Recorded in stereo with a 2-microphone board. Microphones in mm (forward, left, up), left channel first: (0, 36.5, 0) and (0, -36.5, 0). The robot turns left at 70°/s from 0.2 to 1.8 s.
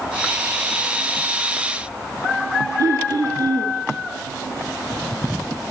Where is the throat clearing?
50° right (ahead or behind), 6.5 m.